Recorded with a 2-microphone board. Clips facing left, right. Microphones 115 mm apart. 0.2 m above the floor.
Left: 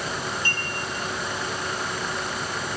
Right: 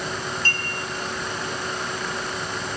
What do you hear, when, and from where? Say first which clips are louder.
0.5 s a clink: right 1 dB; 15° left (ahead or behind), 3 m